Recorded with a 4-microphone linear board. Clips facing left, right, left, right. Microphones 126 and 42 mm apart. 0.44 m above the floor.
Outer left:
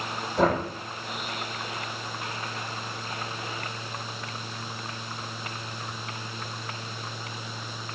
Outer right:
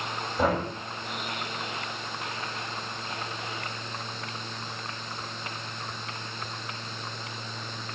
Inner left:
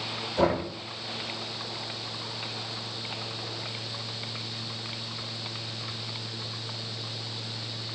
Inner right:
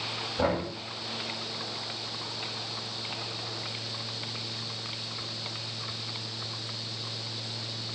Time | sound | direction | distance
0.4 | knocking | 55° left (ahead or behind) | 10 m